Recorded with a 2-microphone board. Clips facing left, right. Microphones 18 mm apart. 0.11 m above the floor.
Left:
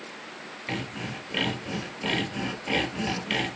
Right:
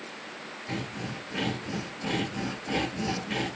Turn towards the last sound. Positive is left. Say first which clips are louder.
# left 2 dB
turn(degrees=55)  # may be behind; listen again after turning